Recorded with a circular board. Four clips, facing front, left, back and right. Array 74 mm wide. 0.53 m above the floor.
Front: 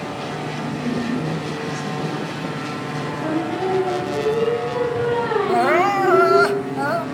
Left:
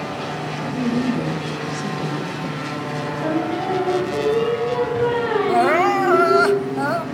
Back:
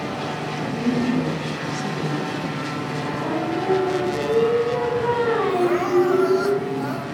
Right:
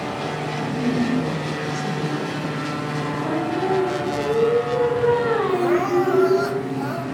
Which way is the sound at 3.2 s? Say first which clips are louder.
Left 2 dB, front 2 dB; 75° left.